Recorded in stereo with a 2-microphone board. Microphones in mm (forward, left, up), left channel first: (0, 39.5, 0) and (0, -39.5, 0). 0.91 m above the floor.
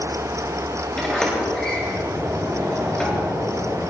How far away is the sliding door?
About 6.5 m.